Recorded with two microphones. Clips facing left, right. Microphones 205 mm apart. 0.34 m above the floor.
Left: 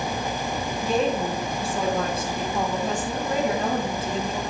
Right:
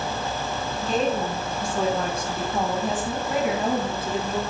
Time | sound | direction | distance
0.8 | a woman speaking | 10° left (ahead or behind) | 5 m